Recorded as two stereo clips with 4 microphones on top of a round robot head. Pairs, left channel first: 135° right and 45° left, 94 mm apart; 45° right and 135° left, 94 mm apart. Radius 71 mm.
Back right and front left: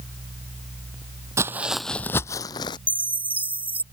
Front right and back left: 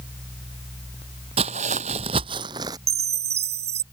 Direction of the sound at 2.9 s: 125° left.